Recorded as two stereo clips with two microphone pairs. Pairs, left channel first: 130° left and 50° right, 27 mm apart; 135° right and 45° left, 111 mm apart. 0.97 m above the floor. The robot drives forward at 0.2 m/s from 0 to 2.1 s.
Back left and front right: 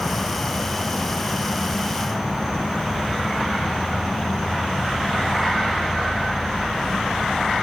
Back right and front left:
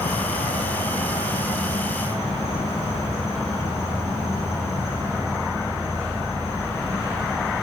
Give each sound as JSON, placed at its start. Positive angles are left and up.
{"t": 0.0, "sound": "an insect", "azimuth_deg": -140, "distance_m": 0.9}